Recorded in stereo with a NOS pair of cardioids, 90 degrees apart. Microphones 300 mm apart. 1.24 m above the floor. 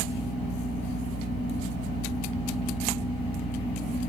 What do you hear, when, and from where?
0.0 s a fan: 5° right, 1.9 m